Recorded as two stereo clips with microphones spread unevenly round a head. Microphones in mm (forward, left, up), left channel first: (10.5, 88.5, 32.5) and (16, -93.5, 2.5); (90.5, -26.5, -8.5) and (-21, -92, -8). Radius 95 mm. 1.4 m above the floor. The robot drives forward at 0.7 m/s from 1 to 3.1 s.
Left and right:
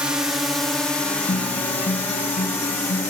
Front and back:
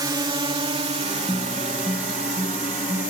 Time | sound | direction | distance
0.0 | a drone | 150° right | ?
1.3 | a guitar | 140° left | ?